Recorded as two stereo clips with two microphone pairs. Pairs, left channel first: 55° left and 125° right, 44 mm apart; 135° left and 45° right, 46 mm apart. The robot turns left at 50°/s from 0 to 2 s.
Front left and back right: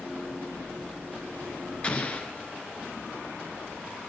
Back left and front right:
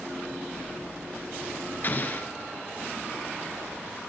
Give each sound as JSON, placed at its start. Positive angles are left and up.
{"t": 1.8, "sound": "an explosion", "azimuth_deg": 115, "distance_m": 1.3}